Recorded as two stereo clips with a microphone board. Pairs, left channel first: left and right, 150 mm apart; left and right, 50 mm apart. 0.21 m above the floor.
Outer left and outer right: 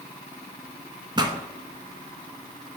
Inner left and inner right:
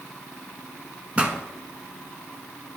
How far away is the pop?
About 0.9 m.